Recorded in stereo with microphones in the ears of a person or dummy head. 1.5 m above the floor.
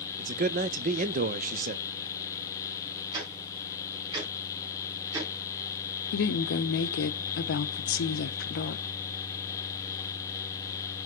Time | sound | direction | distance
0.2 | a man speaking | 45° right (ahead or behind) | 0.7 m
3.1 | ticking | 25° right (ahead or behind) | 3 m
6.1 | a woman speaking | 70° left (ahead or behind) | 0.9 m